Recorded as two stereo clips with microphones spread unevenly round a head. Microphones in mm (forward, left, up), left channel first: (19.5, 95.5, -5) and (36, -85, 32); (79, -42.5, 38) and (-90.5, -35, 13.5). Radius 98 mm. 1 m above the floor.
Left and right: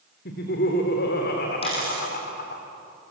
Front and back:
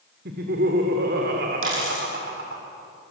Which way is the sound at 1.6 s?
160° left.